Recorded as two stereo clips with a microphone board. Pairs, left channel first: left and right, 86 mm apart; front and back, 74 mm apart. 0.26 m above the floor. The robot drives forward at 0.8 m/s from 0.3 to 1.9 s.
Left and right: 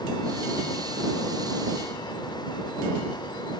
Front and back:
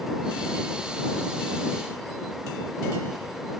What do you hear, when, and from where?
Only background noise.